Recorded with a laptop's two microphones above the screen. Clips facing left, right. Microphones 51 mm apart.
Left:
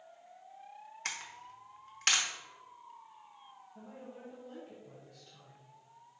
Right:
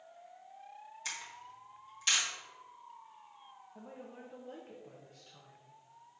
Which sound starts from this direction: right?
A woman speaking, at 3.8 s.